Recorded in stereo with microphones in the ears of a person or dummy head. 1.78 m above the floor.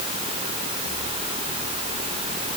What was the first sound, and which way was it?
Only background noise.